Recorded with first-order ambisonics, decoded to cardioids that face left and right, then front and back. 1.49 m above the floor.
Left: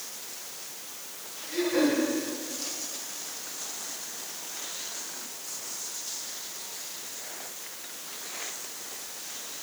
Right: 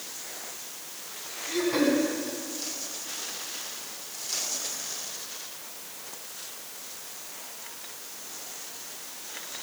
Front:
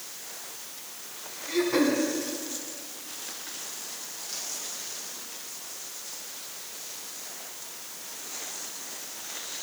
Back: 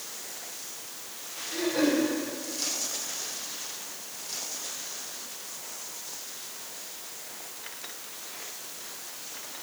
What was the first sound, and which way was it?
Throat clearing, 35° right.